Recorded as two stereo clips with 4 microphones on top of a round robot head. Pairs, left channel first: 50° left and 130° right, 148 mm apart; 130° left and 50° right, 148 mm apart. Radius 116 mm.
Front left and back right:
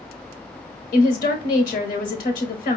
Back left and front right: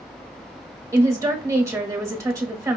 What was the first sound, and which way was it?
A woman speaking, 20° left.